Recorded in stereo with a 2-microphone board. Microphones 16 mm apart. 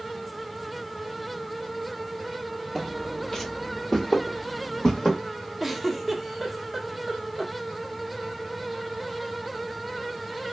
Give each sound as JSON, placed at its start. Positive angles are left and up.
{"t": 2.8, "sound": "footsteps", "side_deg": 10, "distance_m": 1.1}
{"t": 5.6, "sound": "a giggle", "side_deg": -5, "distance_m": 0.9}